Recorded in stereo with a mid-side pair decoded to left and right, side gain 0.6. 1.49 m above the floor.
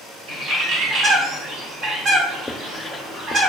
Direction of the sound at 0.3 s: 50° right.